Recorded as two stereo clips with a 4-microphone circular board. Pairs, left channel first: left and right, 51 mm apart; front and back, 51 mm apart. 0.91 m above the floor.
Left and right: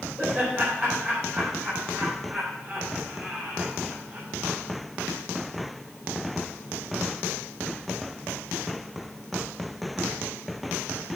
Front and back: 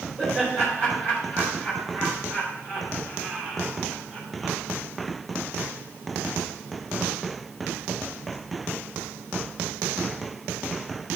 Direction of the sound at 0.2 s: 140° right.